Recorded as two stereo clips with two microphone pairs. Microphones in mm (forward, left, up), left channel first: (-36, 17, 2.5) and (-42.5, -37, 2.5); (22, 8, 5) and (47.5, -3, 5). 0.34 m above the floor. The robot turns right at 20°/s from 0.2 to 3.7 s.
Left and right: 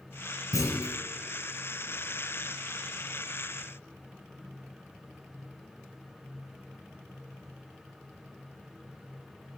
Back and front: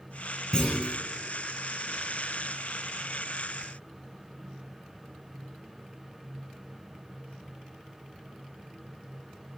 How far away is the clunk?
About 5 m.